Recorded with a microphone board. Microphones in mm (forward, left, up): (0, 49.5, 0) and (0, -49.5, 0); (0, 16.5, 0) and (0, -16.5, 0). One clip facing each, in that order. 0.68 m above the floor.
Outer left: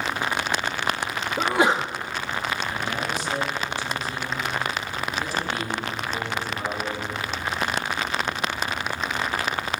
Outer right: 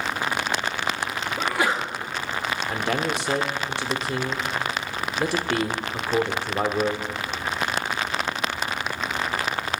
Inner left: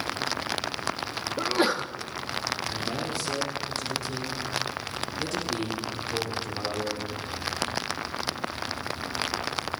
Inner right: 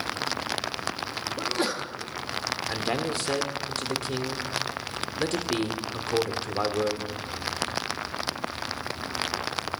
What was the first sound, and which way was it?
A sneeze, 25° left (ahead or behind).